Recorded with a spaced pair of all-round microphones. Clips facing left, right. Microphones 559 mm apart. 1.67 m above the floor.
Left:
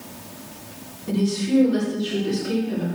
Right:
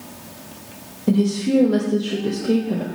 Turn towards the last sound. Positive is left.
turn(degrees=-85)